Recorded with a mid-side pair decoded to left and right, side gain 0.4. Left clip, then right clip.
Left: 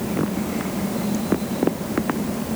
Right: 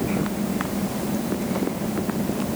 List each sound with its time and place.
Only background noise.